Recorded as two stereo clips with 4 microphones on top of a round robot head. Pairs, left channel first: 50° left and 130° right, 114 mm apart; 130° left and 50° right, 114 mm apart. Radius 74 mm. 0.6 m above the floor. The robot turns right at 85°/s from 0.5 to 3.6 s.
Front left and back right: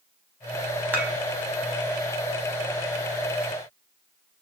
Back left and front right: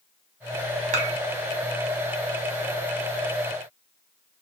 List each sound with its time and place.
0.9 s dishes clattering: 55° right, 1.3 m; by 1.1 s 35° right, 1.3 m